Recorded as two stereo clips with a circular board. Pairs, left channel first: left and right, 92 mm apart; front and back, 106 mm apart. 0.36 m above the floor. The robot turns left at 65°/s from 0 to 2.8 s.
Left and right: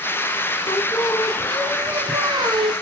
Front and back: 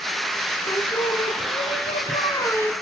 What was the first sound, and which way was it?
Singing, 60° left.